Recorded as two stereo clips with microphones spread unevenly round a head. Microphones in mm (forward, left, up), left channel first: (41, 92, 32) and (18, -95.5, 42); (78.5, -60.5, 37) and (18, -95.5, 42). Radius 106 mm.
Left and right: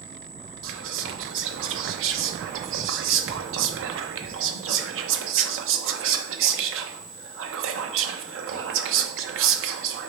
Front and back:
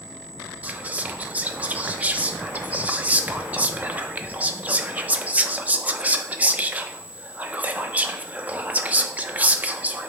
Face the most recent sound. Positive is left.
turn(degrees=-80)